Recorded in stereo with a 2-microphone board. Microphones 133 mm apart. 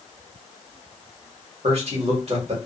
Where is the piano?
I don't hear a piano.